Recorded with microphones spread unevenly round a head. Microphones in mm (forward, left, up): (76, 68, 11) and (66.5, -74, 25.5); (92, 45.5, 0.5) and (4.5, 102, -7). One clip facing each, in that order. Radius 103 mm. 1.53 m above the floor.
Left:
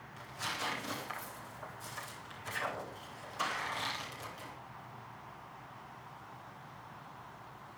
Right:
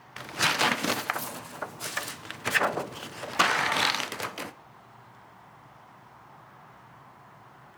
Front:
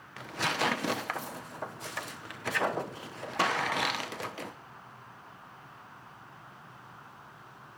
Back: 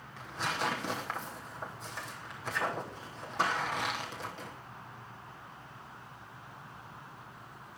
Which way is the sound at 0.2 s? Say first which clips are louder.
Right 13 dB, front 3 dB; 90° right.